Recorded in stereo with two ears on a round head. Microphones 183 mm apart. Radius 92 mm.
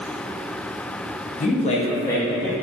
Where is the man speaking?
35° left (ahead or behind), 0.7 m; by 2.5 s centre (ahead or behind), 0.6 m.